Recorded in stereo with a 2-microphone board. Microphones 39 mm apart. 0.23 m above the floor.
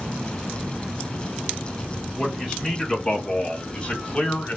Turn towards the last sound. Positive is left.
turn(degrees=25)  # may be behind; listen again after turning